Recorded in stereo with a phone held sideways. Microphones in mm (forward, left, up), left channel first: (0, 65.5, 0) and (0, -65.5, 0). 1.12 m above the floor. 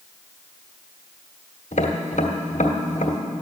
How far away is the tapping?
About 1.3 m.